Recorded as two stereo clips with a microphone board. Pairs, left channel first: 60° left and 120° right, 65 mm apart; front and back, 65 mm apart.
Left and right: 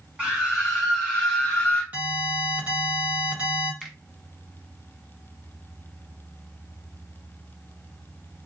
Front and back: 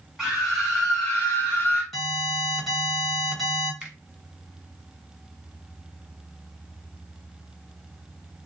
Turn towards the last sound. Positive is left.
turn(degrees=150)